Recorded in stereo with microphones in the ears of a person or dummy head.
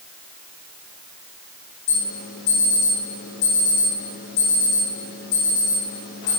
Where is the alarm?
55° left (ahead or behind), 4 m.